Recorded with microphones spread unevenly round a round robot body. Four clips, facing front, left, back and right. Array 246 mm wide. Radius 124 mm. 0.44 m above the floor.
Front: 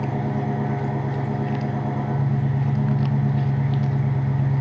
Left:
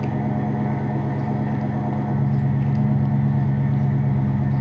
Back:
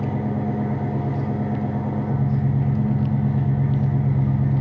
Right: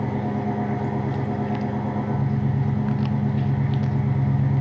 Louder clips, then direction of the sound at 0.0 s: Left 1 dB, back 1 dB; 165° right.